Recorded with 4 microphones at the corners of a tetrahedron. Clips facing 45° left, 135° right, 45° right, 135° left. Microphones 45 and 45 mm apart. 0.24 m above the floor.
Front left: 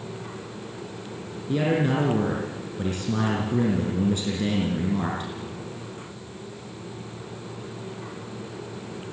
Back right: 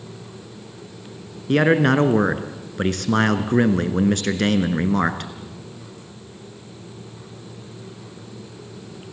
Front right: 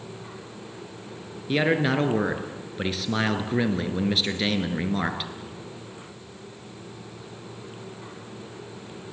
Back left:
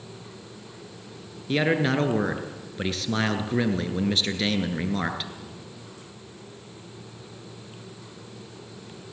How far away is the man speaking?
About 3 m.